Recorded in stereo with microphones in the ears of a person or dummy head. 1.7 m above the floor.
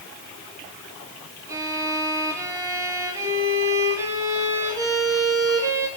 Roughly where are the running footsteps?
No running footsteps in this recording.